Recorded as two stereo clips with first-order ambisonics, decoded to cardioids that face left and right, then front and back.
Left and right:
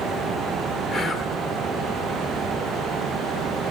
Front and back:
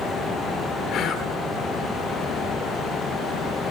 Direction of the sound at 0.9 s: 5° left.